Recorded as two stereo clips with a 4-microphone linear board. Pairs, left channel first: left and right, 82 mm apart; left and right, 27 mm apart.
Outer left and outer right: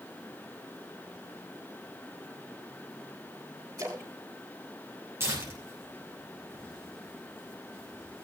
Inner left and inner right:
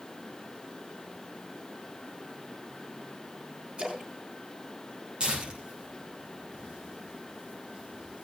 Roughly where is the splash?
Right.